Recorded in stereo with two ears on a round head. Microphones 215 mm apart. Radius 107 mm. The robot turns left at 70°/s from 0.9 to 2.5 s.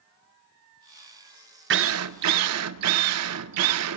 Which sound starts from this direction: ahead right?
A drill, at 1.7 s.